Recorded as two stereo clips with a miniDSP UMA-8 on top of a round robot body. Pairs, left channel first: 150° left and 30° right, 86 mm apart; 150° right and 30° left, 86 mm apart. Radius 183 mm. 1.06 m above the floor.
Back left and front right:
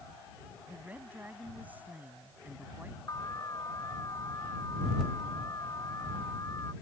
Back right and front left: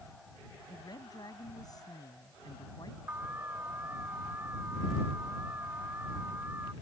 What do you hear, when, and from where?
0.7 s a woman speaking: 100° right
3.1 s an alarm: 100° left